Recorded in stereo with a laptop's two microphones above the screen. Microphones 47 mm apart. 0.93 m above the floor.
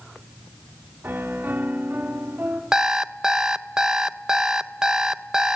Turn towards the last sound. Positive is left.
turn(degrees=-15)  # may be behind; listen again after turning